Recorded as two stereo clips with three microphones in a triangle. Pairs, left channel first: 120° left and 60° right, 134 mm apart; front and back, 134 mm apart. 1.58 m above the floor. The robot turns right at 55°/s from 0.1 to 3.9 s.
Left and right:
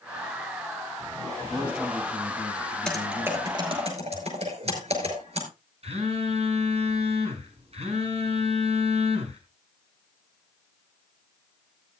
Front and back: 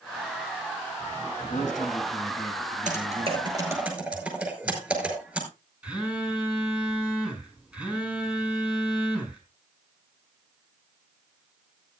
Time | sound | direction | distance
1.4 | a man speaking | 10° left | 8 m
2.9 | typing on a keyboard | 160° right | 5.5 m
5.8 | a phone buzzing | 100° right | 5 m